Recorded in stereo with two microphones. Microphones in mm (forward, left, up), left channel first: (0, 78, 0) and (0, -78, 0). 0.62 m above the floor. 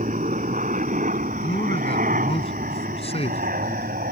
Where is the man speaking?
35° left (ahead or behind).